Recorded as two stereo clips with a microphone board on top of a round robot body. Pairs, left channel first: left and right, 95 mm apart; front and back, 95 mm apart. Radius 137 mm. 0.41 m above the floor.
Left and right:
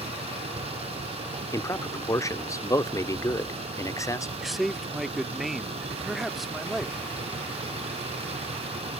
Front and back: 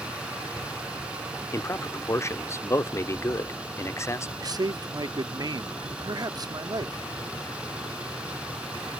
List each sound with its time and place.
0.0 s a vehicle: 100° right
1.5 s a man speaking: 50° left
4.4 s a man speaking: straight behind